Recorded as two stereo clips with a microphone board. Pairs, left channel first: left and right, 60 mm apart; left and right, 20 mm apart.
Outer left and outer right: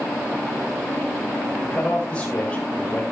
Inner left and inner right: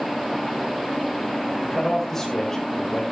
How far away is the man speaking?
About 7.5 m.